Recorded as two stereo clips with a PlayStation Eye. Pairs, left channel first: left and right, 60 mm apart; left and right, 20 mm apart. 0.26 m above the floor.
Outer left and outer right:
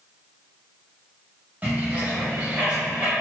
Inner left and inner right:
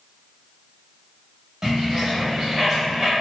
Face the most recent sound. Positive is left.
turn(degrees=-25)  # may be behind; listen again after turning